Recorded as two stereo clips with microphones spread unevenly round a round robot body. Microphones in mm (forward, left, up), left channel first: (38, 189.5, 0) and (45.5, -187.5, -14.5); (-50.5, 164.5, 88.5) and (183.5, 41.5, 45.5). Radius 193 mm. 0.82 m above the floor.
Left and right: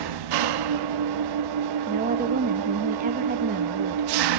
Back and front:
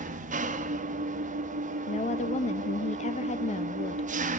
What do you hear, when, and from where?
0.0 s an engine running: 85° right, 1.2 m
1.9 s a woman speaking: 145° right, 0.8 m